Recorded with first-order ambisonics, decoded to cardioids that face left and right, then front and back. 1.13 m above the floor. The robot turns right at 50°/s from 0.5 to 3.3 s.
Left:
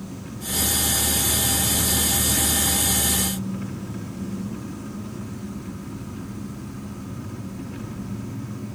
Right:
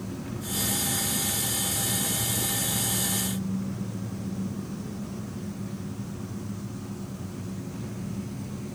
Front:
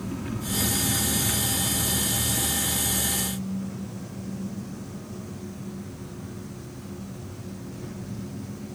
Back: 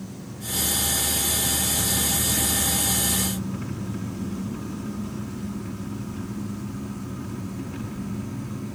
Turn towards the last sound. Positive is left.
turn(degrees=145)